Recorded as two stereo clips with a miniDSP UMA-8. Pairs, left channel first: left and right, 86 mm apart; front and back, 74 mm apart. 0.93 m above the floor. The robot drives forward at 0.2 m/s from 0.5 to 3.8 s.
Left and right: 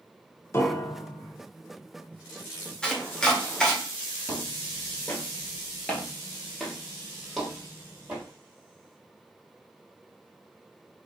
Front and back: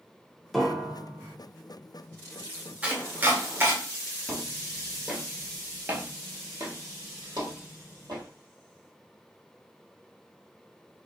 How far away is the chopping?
About 0.8 m.